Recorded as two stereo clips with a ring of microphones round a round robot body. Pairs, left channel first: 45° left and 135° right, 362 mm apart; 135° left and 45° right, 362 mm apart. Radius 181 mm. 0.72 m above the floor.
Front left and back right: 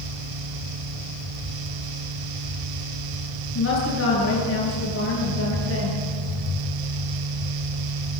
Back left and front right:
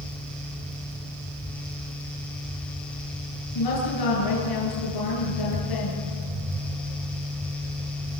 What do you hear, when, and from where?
3.5 s a woman speaking: 100° left, 9 m